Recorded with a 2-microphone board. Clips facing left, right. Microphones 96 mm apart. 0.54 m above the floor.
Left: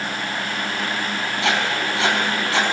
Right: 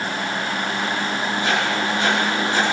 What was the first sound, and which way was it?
Writing, 80° left.